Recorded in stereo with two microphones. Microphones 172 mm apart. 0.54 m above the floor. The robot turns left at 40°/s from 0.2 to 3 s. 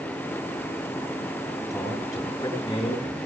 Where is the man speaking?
165° right, 7.5 m; by 3.2 s 145° left, 7.5 m.